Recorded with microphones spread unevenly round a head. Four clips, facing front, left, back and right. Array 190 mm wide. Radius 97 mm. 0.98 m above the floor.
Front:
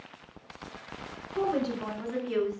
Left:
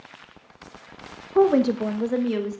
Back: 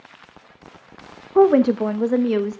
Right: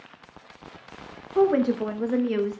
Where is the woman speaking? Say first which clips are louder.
Left 2 dB, back 15 dB; 160° left, 0.9 m; by 2.6 s 170° right, 1.6 m.